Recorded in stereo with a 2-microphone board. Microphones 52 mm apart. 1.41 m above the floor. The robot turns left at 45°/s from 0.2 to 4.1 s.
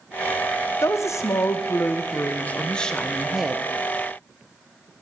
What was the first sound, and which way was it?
A woman speaking, 110° left.